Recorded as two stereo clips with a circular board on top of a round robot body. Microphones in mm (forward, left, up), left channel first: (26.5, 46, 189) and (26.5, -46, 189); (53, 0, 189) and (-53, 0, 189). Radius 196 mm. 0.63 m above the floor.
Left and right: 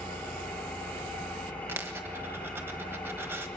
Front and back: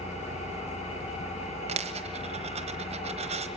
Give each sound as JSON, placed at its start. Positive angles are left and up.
{"t": 0.0, "sound": "an engine running", "azimuth_deg": 10, "distance_m": 7.0}
{"t": 1.7, "sound": "a dropped coin", "azimuth_deg": -155, "distance_m": 1.1}